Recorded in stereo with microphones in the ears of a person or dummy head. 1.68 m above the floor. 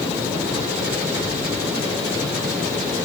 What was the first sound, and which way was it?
Only background noise.